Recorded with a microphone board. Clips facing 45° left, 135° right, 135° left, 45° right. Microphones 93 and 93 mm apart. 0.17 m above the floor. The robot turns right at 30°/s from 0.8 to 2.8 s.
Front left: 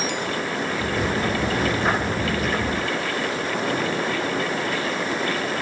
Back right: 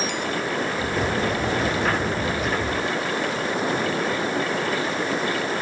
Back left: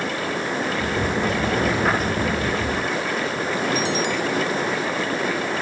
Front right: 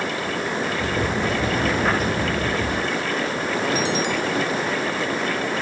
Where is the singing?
I don't hear singing.